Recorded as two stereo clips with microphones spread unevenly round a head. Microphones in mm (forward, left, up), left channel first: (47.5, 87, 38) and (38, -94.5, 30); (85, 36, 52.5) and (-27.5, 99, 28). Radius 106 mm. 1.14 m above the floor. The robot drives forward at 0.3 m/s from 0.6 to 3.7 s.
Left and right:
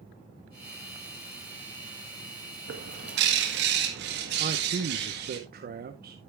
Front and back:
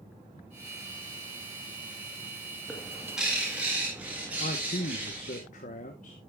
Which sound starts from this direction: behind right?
A bird, at 2.7 s.